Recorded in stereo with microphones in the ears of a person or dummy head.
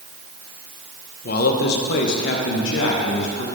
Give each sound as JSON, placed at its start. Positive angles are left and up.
{"t": 1.2, "sound": "a man speaking", "side_deg": 55, "distance_m": 1.1}